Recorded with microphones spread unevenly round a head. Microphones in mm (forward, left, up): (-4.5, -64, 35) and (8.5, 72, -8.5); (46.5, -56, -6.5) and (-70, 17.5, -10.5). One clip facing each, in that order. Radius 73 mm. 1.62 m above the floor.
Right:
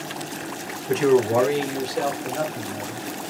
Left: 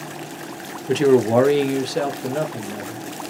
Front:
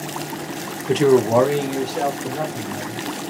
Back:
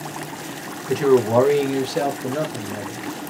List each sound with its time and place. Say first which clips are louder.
0.9 s a man speaking: left 3 dB, front 1 dB; 30° left, 0.8 m; by 3.1 s 120° left, 1.5 m